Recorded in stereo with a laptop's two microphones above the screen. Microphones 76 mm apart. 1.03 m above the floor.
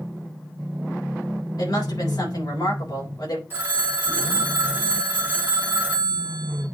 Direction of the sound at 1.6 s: 65° left (ahead or behind).